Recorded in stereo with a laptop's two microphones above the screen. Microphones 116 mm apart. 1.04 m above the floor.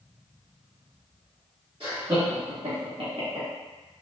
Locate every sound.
1.8 s laughter: 50° right (ahead or behind), 1.4 m; by 3.5 s 45° right (ahead or behind), 1.0 m